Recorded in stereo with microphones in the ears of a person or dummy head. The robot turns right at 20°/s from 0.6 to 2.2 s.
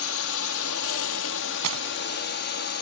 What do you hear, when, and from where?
0.0 s a drone: 85° left; by 2.8 s 120° left
1.6 s breaking glass: 85° right; by 1.9 s 80° right